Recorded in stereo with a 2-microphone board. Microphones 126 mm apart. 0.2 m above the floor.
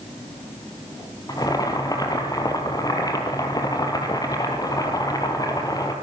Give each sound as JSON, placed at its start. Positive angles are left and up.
{"t": 1.3, "sound": "boiling", "side_deg": 30, "distance_m": 3.0}